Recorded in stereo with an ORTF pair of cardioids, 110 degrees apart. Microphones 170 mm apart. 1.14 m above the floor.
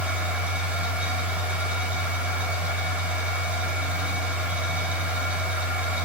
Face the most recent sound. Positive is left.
turn(degrees=-10)